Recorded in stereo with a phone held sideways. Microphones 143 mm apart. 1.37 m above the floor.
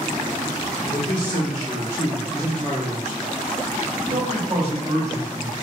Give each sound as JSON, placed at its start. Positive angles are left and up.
{"t": 0.9, "sound": "a man speaking", "side_deg": 70, "distance_m": 1.0}